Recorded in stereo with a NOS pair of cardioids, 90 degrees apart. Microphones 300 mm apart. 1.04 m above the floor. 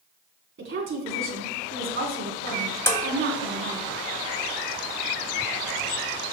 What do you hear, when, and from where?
0.6 s a woman speaking: 40° right, 3 m
2.9 s dishes clattering: 10° left, 1.2 m